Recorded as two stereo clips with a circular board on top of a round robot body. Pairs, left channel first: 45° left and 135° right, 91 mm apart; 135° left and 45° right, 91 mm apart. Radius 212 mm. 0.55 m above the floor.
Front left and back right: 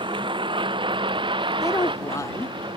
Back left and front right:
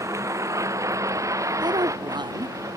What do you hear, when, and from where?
0.0 s a vehicle: 105° right; by 2.8 s 100° right
1.6 s a woman speaking: 10° right